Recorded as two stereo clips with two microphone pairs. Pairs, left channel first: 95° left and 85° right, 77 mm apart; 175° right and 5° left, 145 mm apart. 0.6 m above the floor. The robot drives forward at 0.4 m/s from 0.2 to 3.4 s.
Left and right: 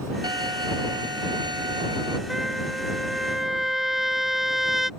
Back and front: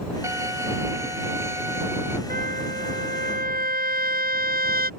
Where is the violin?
65° right; by 2.2 s 70° right.